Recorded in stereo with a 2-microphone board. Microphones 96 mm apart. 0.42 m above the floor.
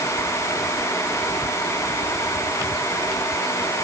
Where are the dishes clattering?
No dishes clattering in this recording.